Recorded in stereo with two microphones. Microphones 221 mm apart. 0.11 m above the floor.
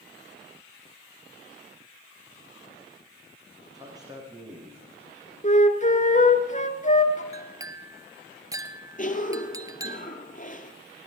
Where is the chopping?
No chopping in this recording.